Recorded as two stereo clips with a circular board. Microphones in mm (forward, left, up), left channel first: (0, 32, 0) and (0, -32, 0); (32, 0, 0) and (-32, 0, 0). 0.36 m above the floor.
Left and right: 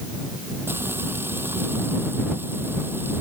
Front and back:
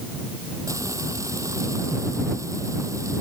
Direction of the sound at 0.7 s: 145° right.